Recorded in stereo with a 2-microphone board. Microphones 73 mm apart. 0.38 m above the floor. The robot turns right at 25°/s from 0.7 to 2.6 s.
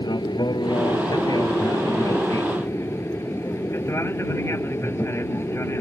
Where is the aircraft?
95° left; by 5.8 s 140° left.